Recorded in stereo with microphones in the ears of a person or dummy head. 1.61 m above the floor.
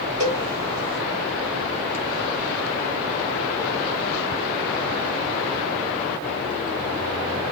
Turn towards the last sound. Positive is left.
turn(degrees=-20)  # may be behind; listen again after turning